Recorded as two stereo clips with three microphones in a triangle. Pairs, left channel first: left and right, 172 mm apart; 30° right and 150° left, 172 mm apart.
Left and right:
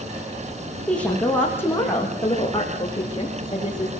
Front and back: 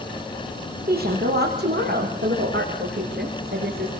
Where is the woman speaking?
175° left, 8.5 m; by 3.9 s 150° left, 11 m.